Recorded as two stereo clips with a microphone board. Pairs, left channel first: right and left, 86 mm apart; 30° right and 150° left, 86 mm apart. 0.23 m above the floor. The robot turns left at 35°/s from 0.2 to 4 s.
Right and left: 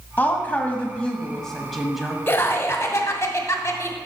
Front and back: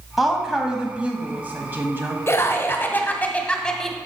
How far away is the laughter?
About 1.1 m.